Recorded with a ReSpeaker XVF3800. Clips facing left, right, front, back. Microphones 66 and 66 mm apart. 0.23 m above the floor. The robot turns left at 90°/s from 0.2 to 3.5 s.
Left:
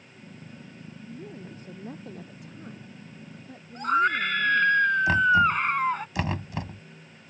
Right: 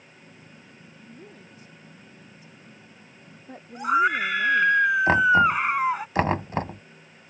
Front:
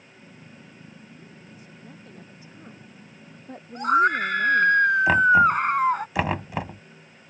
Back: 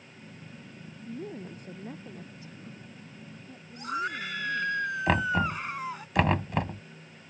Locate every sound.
1.1 s a woman speaking: 170° right; by 4.8 s 30° right
3.8 s a scream: 10° right
5.1 s knocking: 85° right